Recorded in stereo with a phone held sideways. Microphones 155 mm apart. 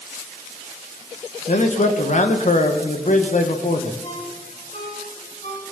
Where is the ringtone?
45° left (ahead or behind), 5.5 m.